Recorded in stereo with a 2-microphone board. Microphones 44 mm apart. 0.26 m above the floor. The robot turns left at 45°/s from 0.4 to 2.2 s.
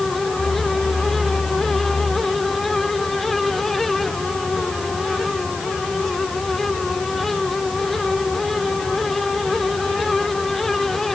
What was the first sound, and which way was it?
Only background noise.